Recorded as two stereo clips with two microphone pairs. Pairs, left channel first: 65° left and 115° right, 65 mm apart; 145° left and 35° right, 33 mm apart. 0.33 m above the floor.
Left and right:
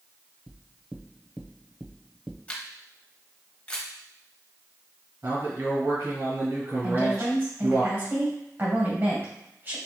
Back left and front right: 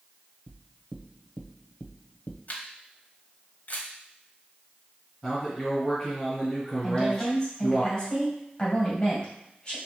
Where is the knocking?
165° left, 0.7 m.